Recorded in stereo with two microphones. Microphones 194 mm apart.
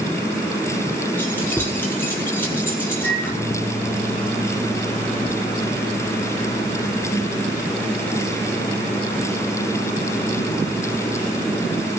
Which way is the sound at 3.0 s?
10° left (ahead or behind).